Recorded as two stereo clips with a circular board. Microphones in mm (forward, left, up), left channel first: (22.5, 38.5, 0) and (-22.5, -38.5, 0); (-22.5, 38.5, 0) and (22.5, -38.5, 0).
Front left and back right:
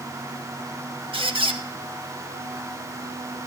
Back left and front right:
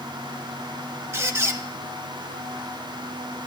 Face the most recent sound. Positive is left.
turn(degrees=-120)